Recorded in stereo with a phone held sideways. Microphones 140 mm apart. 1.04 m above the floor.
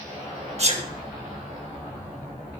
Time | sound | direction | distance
0.6 | a sneeze | 50° right (ahead or behind) | 1.6 m